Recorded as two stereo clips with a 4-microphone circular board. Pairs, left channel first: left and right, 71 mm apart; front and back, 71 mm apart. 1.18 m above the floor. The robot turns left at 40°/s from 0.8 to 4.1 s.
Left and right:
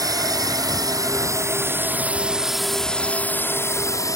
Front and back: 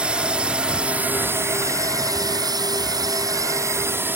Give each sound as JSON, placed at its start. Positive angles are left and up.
{"t": 0.0, "sound": "a drone", "azimuth_deg": -105}